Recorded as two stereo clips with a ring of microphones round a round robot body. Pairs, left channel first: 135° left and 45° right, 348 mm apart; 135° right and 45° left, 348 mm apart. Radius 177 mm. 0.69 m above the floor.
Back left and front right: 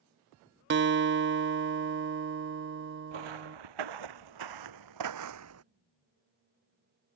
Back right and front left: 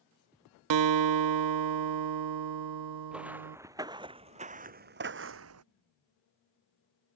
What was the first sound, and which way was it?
A guitar, 15° left.